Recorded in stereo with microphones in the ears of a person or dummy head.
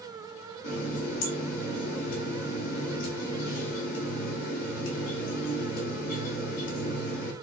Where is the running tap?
45° left (ahead or behind), 1.2 m.